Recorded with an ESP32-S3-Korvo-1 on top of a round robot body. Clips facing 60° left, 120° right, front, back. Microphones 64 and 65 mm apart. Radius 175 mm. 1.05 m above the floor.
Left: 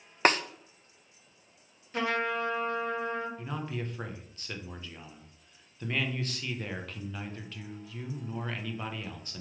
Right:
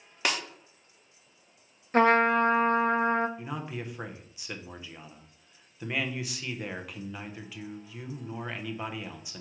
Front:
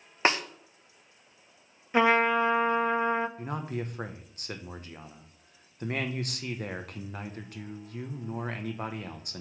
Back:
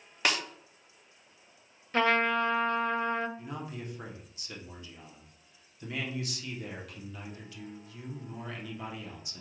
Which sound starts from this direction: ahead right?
A man speaking, at 3.4 s.